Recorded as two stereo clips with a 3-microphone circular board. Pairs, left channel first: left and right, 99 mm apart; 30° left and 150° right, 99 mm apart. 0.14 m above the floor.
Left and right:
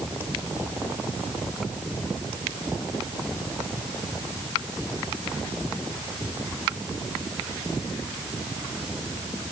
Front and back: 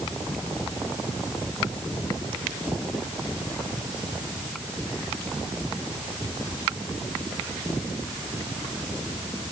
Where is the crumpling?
No crumpling in this recording.